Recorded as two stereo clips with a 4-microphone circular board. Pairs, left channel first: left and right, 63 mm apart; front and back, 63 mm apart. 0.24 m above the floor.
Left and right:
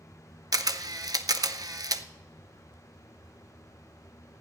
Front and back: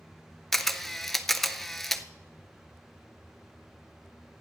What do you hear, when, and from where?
0.5 s a camera shutter: 85° right, 0.6 m